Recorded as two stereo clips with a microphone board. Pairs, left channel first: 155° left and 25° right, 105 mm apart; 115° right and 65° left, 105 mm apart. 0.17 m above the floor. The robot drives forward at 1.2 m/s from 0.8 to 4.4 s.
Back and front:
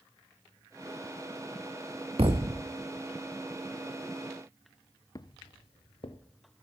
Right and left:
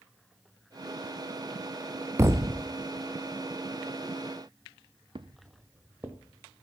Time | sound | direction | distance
2.2 | a thud | 5° left | 1.0 m
5.2 | footsteps | 105° left | 0.6 m